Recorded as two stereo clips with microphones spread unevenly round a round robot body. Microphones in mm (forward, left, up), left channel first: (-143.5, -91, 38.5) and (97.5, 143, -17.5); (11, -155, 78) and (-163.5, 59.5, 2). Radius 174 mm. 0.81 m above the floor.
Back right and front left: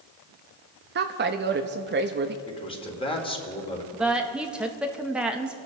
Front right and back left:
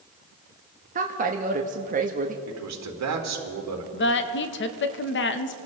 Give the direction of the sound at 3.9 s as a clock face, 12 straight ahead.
1 o'clock.